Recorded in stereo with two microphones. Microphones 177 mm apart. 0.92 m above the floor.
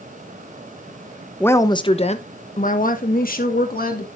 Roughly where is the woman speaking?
Centre.